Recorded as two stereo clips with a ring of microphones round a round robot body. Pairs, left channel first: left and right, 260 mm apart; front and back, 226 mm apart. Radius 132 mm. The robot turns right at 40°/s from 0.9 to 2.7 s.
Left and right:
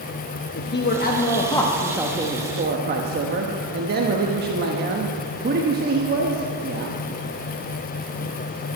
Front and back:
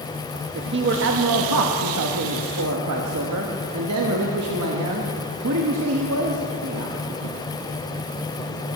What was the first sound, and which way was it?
A man speaking, 145° left.